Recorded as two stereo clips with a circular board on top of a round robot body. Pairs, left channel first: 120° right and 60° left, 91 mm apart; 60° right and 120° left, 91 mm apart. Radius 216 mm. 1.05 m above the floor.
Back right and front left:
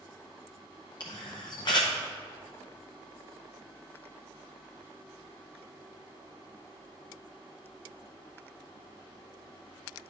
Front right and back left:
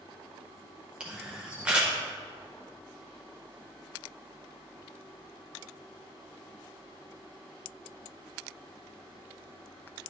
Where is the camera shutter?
160° right, 0.5 m.